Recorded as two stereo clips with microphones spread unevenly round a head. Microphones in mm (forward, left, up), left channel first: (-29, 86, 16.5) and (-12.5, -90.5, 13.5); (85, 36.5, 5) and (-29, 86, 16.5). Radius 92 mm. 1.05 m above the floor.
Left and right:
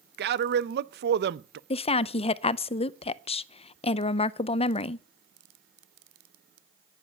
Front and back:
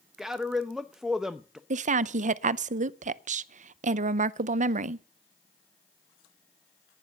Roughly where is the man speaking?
Behind right.